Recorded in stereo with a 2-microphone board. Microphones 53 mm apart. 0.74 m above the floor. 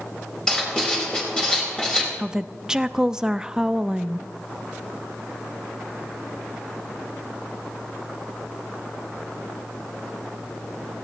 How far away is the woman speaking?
About 0.6 m.